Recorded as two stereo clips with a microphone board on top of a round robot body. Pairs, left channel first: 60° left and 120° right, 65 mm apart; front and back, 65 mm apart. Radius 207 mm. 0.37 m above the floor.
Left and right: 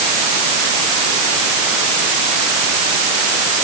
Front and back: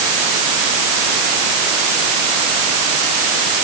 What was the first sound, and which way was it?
Only background noise.